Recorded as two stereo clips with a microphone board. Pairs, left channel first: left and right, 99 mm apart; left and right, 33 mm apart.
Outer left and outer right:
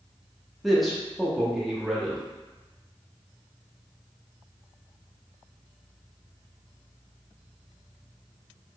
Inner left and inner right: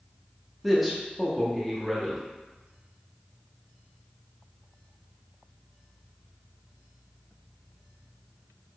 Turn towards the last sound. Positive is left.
turn(degrees=0)  # may be behind; listen again after turning